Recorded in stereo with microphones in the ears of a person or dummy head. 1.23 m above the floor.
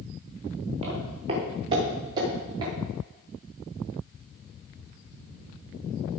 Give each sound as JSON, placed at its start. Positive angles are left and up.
{"t": 0.8, "sound": "footsteps", "side_deg": -35, "distance_m": 5.5}